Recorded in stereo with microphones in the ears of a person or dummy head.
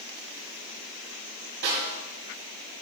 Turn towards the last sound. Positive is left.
turn(degrees=-60)  # may be behind; listen again after turning